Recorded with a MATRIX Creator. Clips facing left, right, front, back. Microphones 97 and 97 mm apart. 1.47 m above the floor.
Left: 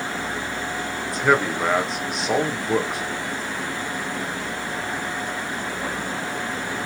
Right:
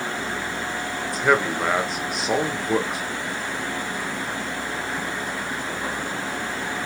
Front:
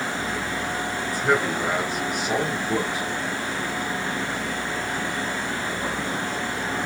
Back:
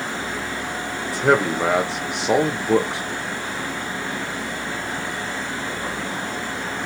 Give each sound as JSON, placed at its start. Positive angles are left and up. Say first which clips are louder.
{"t": 1.0, "sound": "a man speaking", "louder": "left 1 dB, back 5 dB", "azimuth_deg": 180, "distance_m": 1.3}